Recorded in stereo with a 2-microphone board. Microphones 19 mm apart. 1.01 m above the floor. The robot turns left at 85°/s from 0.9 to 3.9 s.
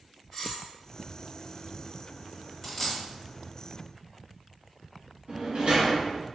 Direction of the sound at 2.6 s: 10° left (ahead or behind).